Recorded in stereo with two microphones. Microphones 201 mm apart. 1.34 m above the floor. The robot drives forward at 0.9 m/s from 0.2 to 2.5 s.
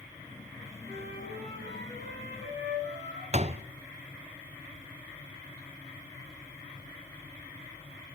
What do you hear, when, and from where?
0.8 s a flute: 60° right (ahead or behind), 9.5 m; by 3.2 s 70° right (ahead or behind), 9 m
3.3 s a door slam: 35° right (ahead or behind), 0.6 m